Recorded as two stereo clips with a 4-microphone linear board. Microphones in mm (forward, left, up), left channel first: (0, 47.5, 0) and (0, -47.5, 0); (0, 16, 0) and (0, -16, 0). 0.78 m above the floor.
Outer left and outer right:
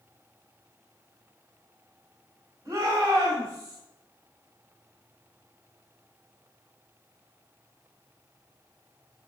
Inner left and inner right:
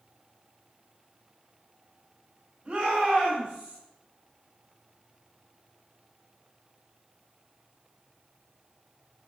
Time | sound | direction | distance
2.6 | a shout | 35° right (ahead or behind) | 3.5 m